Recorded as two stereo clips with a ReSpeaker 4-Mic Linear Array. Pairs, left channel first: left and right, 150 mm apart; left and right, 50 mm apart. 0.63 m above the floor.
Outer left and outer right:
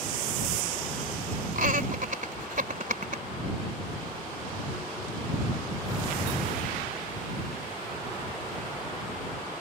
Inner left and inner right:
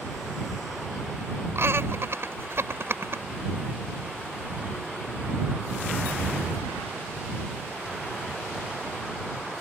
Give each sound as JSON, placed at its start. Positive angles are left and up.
{"t": 1.6, "sound": "laughter", "side_deg": -65}